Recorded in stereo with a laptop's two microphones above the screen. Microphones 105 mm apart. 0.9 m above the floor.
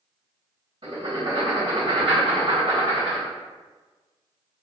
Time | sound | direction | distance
0.8 | writing | 50° right (ahead or behind) | 1.6 m